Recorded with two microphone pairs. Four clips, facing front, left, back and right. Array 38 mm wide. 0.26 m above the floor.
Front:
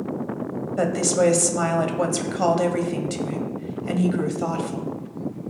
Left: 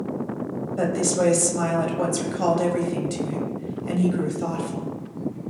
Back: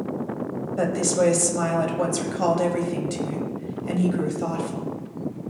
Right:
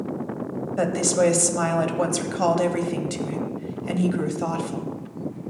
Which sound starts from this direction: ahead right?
A woman speaking, at 0.8 s.